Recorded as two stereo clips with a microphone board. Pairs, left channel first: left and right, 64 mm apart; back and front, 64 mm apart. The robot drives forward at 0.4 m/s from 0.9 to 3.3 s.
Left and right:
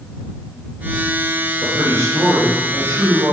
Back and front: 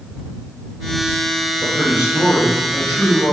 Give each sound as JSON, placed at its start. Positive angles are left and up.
{"t": 1.6, "sound": "a man speaking", "azimuth_deg": -110, "distance_m": 0.7}